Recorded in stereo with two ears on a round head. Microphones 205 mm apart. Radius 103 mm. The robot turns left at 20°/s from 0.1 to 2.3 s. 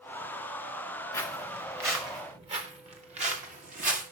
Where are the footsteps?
10° left (ahead or behind), 4 m; by 4.0 s 35° right (ahead or behind), 5.5 m.